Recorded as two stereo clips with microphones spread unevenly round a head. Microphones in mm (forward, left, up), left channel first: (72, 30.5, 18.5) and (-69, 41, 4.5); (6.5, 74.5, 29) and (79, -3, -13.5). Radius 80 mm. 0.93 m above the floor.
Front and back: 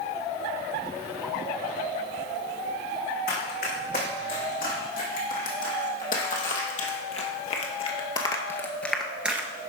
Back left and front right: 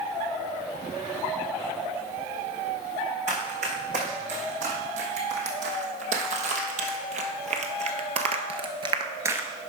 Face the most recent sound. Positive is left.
turn(degrees=145)